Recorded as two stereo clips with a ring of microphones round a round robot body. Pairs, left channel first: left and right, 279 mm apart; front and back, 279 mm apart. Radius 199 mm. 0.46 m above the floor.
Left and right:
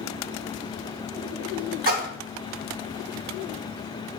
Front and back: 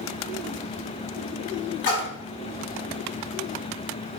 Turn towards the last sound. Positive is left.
turn(degrees=-45)